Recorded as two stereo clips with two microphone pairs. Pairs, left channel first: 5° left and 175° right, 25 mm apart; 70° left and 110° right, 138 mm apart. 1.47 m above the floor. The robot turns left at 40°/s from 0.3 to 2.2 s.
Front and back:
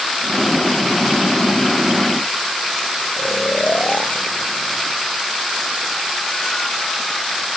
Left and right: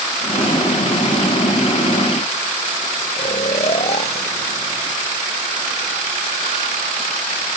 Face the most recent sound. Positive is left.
turn(degrees=25)